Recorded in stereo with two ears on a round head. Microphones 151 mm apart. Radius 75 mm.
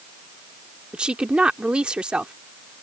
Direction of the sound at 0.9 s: 5° right (ahead or behind).